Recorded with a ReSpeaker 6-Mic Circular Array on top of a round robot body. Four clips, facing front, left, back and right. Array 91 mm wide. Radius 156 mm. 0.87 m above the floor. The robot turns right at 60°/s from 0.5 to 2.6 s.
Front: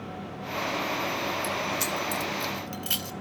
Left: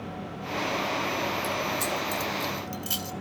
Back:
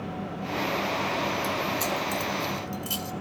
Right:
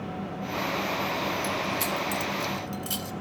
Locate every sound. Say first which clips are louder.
1.4 s keys jangling: even, back 2 dB; 65° right, 0.9 m; by 3.1 s 5° left, 0.9 m